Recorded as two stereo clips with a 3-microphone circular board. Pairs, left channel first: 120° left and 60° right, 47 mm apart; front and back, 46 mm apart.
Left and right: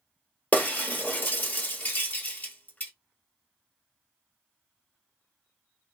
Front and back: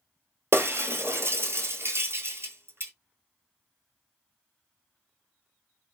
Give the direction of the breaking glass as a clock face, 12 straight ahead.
7 o'clock.